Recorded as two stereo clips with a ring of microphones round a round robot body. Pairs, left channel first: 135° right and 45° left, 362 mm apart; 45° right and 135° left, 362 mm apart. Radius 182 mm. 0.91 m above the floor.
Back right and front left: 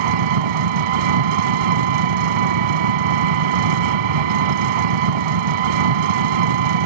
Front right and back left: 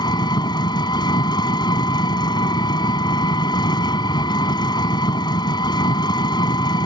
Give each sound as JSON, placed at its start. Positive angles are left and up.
{"t": 0.0, "sound": "an engine running", "azimuth_deg": 35}